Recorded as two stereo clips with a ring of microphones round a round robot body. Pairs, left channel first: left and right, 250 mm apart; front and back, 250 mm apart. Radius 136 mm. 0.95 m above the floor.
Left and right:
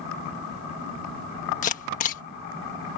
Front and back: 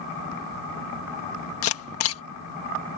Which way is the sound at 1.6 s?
30° left.